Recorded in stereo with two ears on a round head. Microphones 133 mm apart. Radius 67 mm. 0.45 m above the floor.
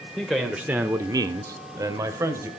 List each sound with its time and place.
0.2 s a man speaking: centre (ahead or behind), 1.4 m; by 2.5 s 20° right (ahead or behind), 1.9 m